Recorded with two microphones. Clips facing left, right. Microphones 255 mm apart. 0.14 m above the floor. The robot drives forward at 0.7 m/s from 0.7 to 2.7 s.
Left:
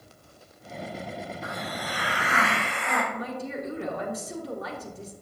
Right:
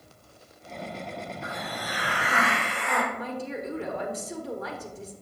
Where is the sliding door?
I don't hear a sliding door.